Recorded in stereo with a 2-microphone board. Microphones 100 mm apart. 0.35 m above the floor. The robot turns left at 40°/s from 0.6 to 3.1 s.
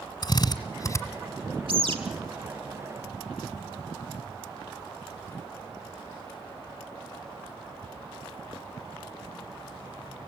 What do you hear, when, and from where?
0.2 s a drill: 45° left (ahead or behind), 1.7 m; by 1.0 s 30° left (ahead or behind), 1.7 m
1.7 s a bird: 65° right (ahead or behind), 2 m